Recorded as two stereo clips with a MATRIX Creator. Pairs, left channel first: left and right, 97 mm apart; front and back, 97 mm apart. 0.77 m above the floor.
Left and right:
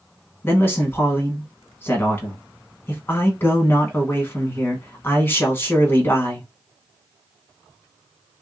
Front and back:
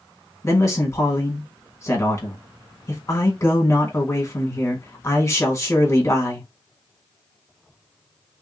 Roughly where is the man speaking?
Ahead left.